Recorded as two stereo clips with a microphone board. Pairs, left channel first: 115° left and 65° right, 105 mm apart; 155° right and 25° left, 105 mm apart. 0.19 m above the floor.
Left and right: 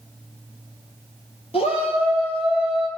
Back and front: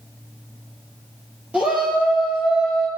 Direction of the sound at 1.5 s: 100° left.